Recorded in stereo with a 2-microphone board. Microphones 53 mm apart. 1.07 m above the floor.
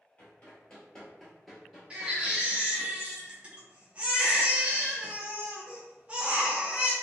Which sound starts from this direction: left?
Running footsteps, at 0.2 s.